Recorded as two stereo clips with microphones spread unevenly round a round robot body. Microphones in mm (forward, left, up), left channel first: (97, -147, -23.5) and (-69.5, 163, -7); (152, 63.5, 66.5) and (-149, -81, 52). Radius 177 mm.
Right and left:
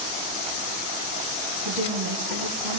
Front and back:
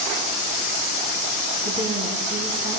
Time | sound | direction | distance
1.6 | a woman speaking | 135° left | 3.5 m